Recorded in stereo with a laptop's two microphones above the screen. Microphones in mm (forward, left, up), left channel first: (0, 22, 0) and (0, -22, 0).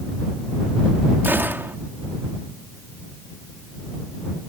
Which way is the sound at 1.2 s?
50° right (ahead or behind).